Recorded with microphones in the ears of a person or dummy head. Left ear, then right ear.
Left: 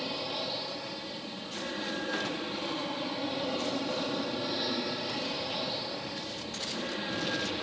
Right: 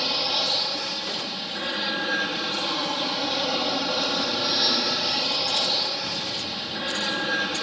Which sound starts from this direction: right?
An aircraft, at 0.0 s.